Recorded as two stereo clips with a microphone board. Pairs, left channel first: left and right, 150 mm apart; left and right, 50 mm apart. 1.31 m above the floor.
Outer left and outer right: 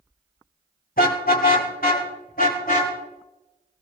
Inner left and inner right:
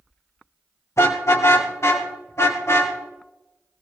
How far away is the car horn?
About 2.5 m.